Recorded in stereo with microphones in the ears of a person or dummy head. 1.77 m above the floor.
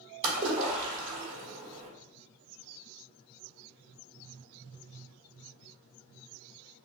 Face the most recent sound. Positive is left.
turn(degrees=-30)  # may be behind; listen again after turning